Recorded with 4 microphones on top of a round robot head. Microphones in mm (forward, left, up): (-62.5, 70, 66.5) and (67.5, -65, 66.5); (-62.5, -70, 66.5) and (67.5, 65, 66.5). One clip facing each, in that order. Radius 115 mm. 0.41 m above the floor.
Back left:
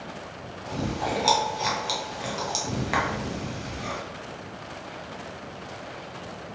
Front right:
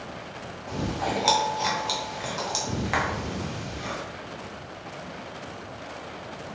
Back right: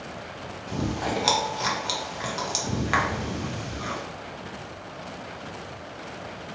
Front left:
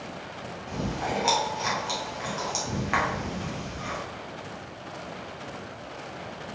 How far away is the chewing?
About 0.8 m.